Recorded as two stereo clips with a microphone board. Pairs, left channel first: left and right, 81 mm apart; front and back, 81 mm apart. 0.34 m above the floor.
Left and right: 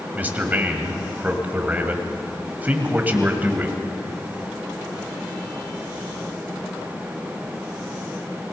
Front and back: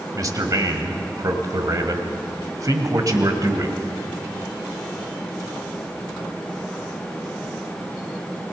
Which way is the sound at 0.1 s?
155° right.